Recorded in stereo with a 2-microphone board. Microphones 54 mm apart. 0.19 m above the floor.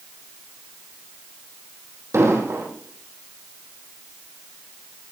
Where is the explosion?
60° right (ahead or behind), 5 m.